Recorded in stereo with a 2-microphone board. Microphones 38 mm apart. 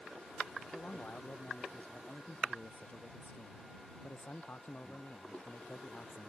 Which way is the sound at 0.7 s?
35° left (ahead or behind).